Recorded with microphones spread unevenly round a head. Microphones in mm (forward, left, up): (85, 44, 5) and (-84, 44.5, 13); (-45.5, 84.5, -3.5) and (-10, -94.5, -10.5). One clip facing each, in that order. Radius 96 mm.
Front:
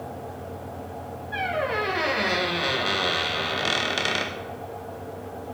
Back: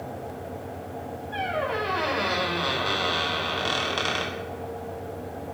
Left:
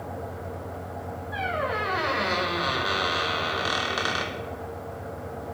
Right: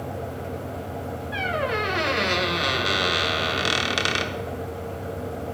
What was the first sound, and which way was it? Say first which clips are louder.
A squeak: front 1 dB, right 2 dB; 70° right.